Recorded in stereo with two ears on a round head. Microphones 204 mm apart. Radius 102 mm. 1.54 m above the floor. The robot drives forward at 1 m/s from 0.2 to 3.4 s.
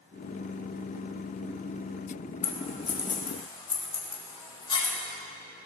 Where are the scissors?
35° left (ahead or behind), 2.0 m; by 4.9 s 20° left (ahead or behind), 3 m.